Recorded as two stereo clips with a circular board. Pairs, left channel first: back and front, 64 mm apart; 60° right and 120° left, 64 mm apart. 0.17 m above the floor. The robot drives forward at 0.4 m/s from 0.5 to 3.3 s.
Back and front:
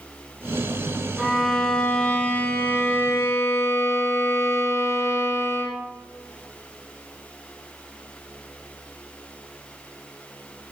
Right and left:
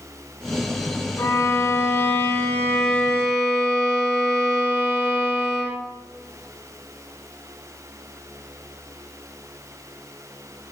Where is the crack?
I don't hear a crack.